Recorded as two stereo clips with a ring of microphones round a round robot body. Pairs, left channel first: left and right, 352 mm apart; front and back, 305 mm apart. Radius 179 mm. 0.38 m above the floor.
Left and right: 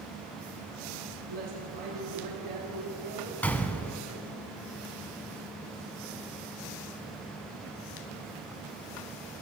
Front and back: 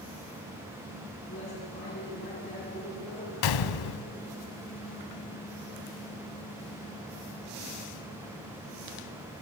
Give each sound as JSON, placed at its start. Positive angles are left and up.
{"t": 1.3, "sound": "a woman speaking", "azimuth_deg": -60, "distance_m": 6.0}
{"t": 3.4, "sound": "a gunshot", "azimuth_deg": 5, "distance_m": 0.6}